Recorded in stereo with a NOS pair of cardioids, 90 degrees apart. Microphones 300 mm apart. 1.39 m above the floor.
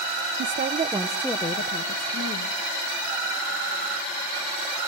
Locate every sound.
0.4 s a woman speaking: 40° right, 1.3 m; by 2.6 s 60° left, 2.0 m